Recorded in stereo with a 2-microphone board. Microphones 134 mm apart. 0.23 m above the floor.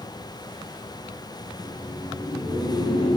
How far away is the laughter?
About 1.2 m.